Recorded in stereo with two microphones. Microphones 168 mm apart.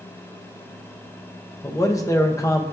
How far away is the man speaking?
About 0.6 m.